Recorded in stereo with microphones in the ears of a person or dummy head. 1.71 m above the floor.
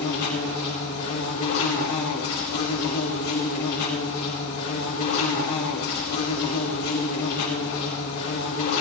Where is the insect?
50° left (ahead or behind), 6 m.